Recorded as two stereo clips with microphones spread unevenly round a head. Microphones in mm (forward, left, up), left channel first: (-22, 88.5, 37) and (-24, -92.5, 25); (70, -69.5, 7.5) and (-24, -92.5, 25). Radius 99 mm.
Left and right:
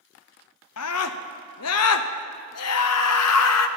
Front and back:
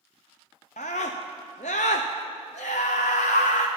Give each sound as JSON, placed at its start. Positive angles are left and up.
{"t": 0.8, "sound": "a scream", "azimuth_deg": 75, "distance_m": 0.6}